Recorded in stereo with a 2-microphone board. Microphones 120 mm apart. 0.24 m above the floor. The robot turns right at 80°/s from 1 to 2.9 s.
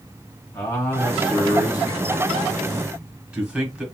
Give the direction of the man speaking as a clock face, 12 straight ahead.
11 o'clock.